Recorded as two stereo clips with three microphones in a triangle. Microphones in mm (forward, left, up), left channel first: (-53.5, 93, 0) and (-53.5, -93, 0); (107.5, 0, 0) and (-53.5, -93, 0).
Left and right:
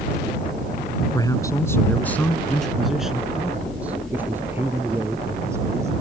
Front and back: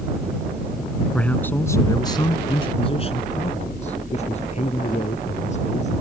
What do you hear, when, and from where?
1.1 s a man speaking: 105° left; by 6.0 s 15° right